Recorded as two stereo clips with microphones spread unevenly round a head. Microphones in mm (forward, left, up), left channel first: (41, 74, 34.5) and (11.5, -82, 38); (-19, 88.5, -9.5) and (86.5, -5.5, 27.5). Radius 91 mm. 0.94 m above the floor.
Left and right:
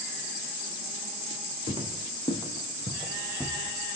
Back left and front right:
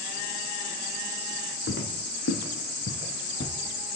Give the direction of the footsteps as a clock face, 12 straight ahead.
7 o'clock.